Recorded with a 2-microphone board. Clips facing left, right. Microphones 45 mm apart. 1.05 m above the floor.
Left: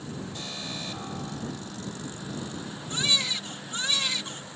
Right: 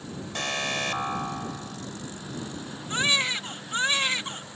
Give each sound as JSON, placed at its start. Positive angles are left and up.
{"t": 0.3, "sound": "an alarm", "side_deg": -70}
{"t": 2.9, "sound": "a baby crying", "side_deg": -40}